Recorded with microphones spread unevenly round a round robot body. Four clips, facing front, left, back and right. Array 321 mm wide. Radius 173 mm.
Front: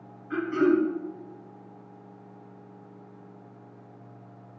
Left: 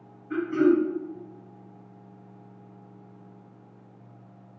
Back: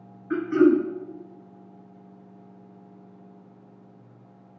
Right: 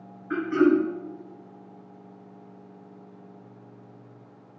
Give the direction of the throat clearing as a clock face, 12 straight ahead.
5 o'clock.